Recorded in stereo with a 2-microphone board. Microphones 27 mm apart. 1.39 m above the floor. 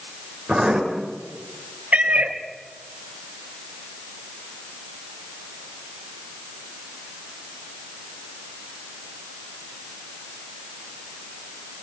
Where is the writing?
20° right (ahead or behind), 8.5 m.